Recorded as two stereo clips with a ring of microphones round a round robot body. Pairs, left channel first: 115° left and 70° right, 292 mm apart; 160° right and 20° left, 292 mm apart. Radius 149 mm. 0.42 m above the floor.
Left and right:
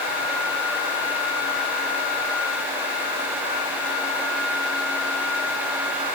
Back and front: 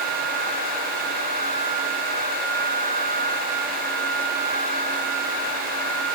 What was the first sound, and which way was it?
Only background noise.